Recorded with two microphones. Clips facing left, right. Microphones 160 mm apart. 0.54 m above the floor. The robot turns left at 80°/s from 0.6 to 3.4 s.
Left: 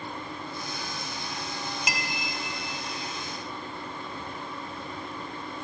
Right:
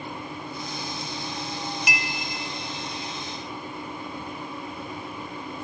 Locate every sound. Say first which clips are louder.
1.9 s a clink: right 2 dB; 25° left (ahead or behind), 0.9 m; by 2.1 s 35° left (ahead or behind), 0.9 m